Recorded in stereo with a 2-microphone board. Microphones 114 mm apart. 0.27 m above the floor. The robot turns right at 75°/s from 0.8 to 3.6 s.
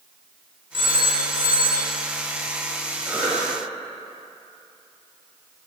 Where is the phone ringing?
125° right, 1.4 m; by 1.9 s 40° right, 1.4 m.